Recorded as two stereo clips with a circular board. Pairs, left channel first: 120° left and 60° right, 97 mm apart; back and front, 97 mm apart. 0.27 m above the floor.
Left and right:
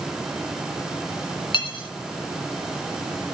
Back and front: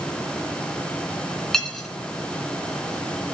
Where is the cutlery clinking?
95° left, 2 m.